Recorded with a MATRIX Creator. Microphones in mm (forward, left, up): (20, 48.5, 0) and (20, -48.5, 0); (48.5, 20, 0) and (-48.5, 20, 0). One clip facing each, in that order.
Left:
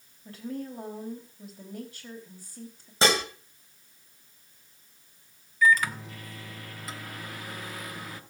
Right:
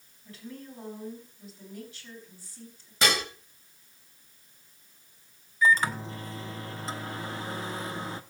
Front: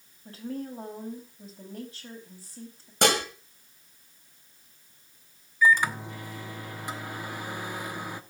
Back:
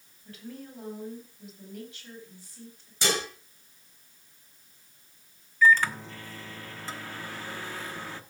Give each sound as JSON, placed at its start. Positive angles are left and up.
{"t": 0.2, "sound": "a woman speaking", "azimuth_deg": 50, "distance_m": 4.0}
{"t": 3.0, "sound": "dishes clattering", "azimuth_deg": 30, "distance_m": 2.0}
{"t": 5.6, "sound": "a microwave", "azimuth_deg": -60, "distance_m": 0.8}